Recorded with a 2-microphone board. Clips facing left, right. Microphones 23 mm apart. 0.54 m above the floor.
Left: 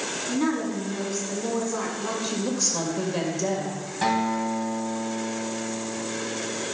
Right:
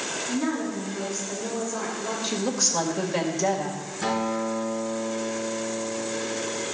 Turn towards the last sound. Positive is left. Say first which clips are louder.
# left 2 dB
turn(degrees=80)